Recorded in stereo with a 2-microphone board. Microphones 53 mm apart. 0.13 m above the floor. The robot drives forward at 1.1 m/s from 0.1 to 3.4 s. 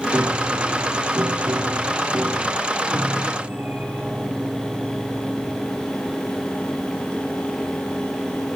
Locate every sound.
0.1 s a piano: 50° right (ahead or behind), 2.0 m; by 5.8 s 30° right (ahead or behind), 3 m